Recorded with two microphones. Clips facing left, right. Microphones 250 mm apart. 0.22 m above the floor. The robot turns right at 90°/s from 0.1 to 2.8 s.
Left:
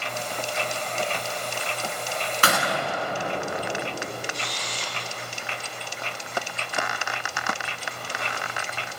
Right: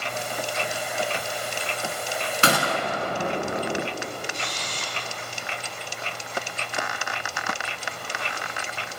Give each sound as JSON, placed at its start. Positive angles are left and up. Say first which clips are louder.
{"t": 2.4, "sound": "a gunshot", "louder": "right 3 dB", "side_deg": -25, "distance_m": 0.9}
{"t": 4.3, "sound": "a camera shutter", "louder": "even", "side_deg": -45, "distance_m": 1.6}